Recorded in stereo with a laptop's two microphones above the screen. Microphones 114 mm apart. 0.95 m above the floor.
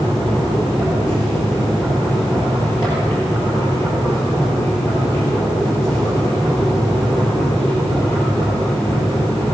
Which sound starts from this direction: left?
A machine running, at 0.0 s.